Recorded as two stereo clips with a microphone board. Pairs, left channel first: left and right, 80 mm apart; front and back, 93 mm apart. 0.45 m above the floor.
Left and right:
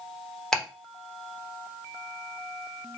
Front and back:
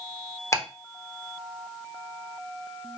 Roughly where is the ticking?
Ahead.